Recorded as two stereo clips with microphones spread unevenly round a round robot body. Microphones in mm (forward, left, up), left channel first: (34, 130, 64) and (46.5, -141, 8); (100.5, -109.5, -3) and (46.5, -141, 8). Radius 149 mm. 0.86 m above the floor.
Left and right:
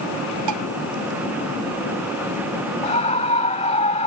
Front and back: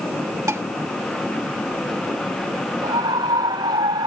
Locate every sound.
0.5 s dishes clattering: 110° right
2.8 s a scream: 165° left